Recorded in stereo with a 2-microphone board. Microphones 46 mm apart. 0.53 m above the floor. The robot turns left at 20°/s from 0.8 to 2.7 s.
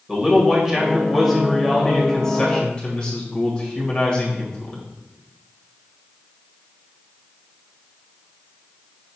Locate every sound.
0.1 s a man speaking: 165° right, 2 m; by 4.8 s 155° left, 2 m